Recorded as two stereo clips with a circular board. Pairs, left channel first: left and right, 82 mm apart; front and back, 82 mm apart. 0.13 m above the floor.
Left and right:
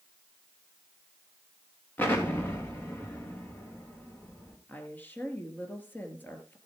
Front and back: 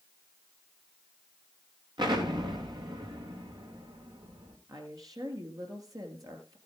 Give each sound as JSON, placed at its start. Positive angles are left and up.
{"t": 2.0, "sound": "an explosion", "azimuth_deg": 155, "distance_m": 3.0}
{"t": 4.7, "sound": "a woman speaking", "azimuth_deg": 155, "distance_m": 2.5}